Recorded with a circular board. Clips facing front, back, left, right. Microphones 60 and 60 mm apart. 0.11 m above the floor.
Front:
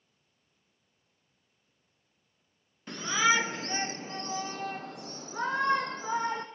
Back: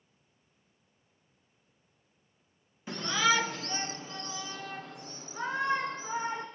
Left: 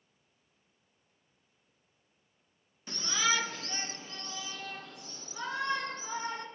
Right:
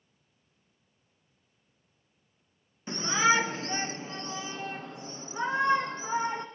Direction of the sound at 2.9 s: 100° right.